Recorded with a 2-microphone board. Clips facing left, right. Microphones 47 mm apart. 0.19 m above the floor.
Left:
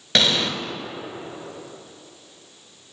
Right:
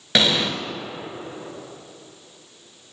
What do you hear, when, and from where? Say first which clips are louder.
0.1 s an explosion: right 1 dB; 10° right (ahead or behind), 0.8 m